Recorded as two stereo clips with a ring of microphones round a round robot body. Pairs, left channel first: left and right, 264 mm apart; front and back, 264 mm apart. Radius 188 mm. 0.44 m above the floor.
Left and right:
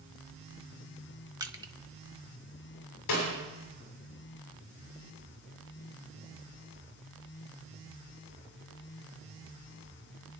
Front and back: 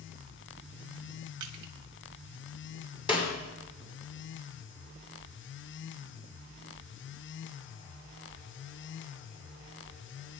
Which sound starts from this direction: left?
A snare drum, at 3.1 s.